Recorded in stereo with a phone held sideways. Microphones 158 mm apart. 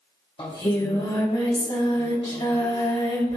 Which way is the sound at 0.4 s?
35° left (ahead or behind).